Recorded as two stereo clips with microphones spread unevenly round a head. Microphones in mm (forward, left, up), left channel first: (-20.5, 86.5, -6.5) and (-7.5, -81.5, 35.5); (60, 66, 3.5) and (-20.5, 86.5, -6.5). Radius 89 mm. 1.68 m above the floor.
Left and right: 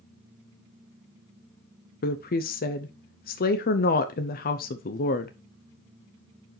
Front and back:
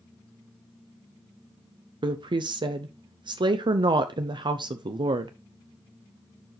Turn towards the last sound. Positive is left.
turn(degrees=135)